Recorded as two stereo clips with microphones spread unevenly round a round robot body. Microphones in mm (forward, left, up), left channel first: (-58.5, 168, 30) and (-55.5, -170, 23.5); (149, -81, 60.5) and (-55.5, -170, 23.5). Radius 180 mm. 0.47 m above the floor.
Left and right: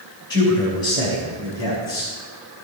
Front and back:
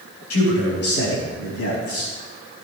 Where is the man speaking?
15° left, 3 m; by 2.1 s 10° left, 5 m.